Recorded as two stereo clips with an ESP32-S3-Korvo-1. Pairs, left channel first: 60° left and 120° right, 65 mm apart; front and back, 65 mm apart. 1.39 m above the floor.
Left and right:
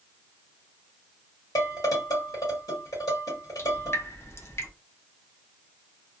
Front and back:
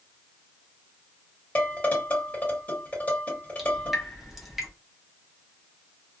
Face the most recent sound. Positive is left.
turn(degrees=95)